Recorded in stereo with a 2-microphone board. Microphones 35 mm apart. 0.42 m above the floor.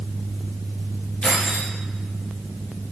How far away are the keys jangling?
About 9 m.